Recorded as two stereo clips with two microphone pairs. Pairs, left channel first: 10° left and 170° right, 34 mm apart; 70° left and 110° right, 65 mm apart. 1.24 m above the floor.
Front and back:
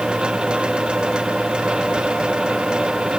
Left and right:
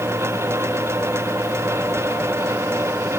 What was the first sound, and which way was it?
Only background noise.